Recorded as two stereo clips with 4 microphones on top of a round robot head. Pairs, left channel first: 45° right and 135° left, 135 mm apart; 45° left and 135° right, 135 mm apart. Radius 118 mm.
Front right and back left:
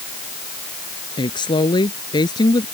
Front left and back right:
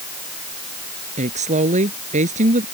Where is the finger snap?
I don't hear a finger snap.